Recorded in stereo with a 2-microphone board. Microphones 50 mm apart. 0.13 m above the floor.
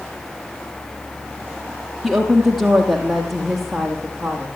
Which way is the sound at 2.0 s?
10° right (ahead or behind).